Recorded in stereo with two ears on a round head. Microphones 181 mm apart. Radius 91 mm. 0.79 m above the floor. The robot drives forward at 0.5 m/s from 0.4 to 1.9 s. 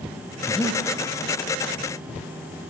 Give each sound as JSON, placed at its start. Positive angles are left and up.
{"t": 0.5, "sound": "breathing", "side_deg": 5, "distance_m": 1.0}